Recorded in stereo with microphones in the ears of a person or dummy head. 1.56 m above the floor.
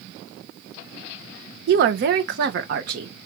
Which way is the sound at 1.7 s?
65° right (ahead or behind).